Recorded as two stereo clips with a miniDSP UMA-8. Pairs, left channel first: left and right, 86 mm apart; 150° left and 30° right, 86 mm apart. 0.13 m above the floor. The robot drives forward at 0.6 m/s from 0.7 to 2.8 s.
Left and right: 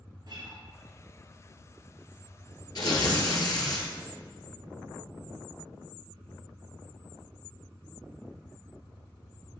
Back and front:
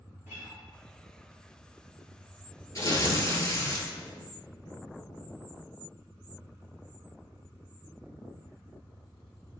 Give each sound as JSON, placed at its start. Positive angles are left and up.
{"t": 0.3, "sound": "a guitar", "azimuth_deg": -90, "distance_m": 3.0}
{"t": 2.8, "sound": "tearing paper", "azimuth_deg": 110, "distance_m": 1.5}